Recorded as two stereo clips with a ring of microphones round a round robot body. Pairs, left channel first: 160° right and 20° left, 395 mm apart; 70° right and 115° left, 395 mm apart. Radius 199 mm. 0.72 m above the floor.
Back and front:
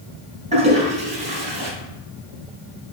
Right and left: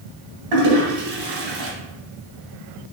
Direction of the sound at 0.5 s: 95° left.